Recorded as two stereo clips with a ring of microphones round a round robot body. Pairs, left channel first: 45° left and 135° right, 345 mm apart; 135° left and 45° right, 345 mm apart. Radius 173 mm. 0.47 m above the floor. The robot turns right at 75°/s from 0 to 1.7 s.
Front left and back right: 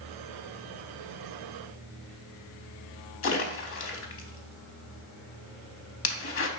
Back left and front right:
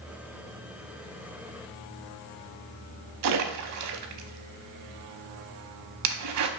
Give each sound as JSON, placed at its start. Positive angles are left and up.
{"t": 3.2, "sound": "a splash", "azimuth_deg": -5, "distance_m": 0.6}